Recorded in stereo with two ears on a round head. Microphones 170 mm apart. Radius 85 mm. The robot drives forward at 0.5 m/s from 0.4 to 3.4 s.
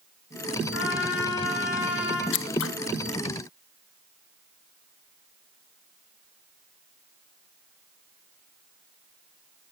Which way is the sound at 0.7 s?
65° left (ahead or behind).